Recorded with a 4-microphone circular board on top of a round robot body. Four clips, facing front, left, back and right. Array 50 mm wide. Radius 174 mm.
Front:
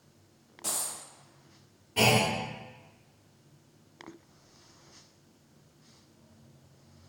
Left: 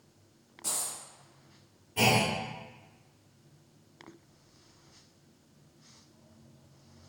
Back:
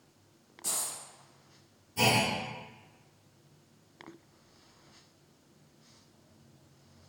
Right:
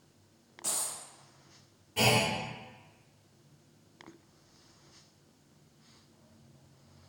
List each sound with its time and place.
0.6 s a dropped coin: 20° right, 0.8 m
2.0 s a clunk: 10° right, 1.3 m